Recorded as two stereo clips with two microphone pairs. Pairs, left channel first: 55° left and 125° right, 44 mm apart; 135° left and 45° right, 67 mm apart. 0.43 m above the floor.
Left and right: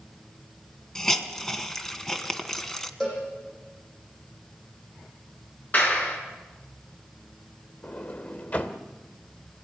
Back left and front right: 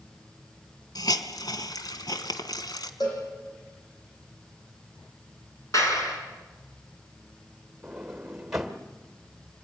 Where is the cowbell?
135° left, 9.5 m.